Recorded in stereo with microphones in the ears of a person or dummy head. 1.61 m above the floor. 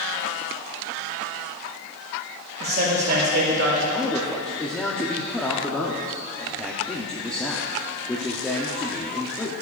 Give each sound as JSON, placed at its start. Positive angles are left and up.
{"t": 2.6, "sound": "a man speaking", "side_deg": -45, "distance_m": 2.5}
{"t": 3.9, "sound": "a man speaking", "side_deg": 5, "distance_m": 0.7}